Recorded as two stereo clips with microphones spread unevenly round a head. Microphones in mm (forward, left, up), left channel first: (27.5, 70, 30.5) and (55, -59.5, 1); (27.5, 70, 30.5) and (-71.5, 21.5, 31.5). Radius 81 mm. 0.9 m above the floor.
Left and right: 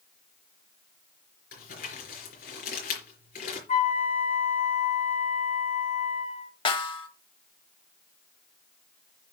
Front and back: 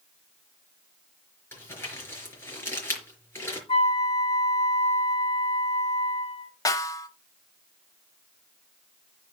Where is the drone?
I don't hear a drone.